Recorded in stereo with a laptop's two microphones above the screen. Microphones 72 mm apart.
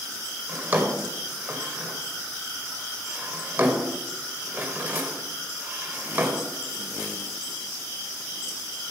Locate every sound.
0.5 s a drawer: 25° right (ahead or behind), 1.8 m